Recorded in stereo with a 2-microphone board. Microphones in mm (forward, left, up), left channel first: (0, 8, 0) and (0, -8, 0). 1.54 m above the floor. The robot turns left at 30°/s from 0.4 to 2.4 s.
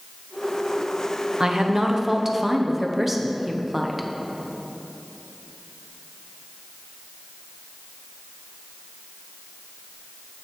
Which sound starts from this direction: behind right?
A woman speaking, at 1.4 s.